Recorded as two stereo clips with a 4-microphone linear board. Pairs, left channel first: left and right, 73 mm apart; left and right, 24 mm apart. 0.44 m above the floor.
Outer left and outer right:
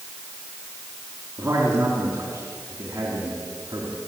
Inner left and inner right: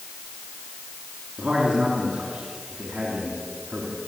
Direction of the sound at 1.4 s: 30° right (ahead or behind).